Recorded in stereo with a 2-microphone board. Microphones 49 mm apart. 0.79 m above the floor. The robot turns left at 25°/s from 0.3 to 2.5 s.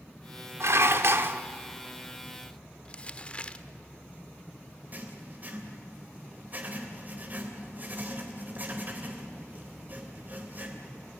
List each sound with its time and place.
0.6 s dishes clattering: 70° right (ahead or behind), 1.1 m; by 1.4 s 50° right (ahead or behind), 1.1 m
2.9 s crumpling: 25° left (ahead or behind), 1.0 m
4.9 s writing: 35° right (ahead or behind), 3 m